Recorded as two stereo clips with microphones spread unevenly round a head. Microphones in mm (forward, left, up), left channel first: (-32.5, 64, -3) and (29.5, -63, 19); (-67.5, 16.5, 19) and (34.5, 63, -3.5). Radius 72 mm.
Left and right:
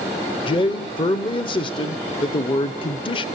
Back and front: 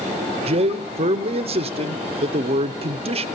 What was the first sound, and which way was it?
A man speaking, 60° left.